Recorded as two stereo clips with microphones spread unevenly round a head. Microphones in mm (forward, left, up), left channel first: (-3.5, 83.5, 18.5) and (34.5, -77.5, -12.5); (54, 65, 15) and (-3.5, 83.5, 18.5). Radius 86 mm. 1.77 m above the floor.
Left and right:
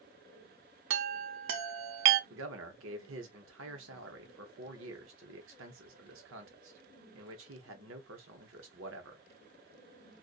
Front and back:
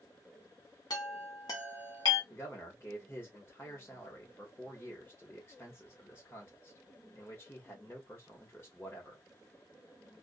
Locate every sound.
0.9 s a chime: 65° right, 0.5 m
2.3 s a man speaking: 95° right, 0.9 m